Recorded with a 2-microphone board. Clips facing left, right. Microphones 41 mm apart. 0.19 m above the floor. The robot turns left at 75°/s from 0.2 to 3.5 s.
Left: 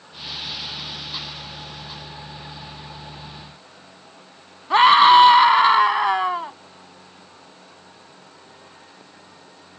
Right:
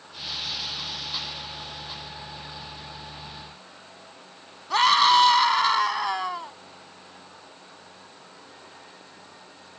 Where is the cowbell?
No cowbell in this recording.